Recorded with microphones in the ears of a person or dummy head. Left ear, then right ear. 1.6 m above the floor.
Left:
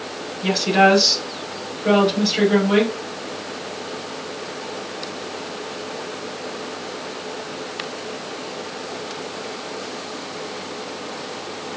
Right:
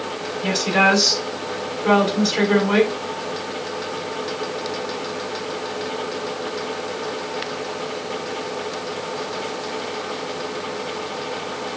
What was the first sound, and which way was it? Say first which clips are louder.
A woman speaking: left 2 dB; 45° right (ahead or behind).